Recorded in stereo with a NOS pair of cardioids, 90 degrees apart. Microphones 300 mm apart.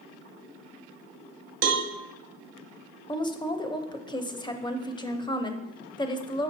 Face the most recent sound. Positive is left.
turn(degrees=15)